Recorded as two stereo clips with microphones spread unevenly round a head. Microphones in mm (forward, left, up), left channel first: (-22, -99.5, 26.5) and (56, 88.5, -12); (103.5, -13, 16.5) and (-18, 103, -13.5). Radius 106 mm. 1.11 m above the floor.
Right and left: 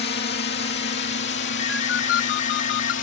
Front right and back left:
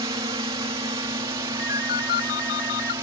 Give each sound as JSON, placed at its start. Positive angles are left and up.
{"t": 0.0, "sound": "a drone", "azimuth_deg": -155}
{"t": 1.6, "sound": "a ringtone", "azimuth_deg": -90}